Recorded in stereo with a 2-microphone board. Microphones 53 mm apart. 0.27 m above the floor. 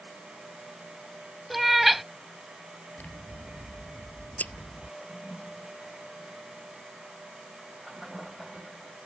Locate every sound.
1.5 s a cat meowing: 5° right (ahead or behind)
3.0 s scissors: 30° left (ahead or behind)
5.0 s a toilet flushing: centre (ahead or behind)